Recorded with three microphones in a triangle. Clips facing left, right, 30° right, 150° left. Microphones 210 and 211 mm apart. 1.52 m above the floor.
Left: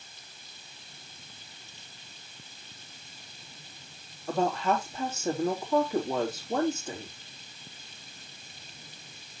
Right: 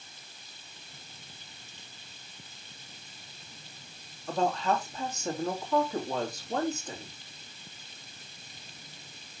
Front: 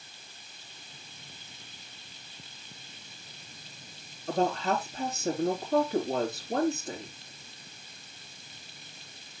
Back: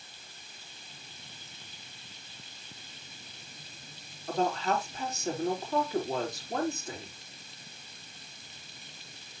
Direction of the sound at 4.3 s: 5° left.